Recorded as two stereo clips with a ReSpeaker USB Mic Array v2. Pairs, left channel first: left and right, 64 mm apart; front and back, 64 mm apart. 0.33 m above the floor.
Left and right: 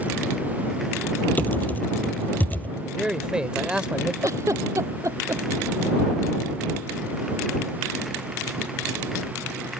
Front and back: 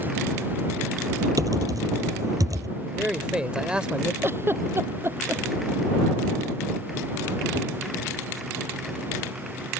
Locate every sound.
1.4 s typing on a keyboard: 155° left
2.8 s a man speaking: 135° right
4.2 s a giggle: 130° right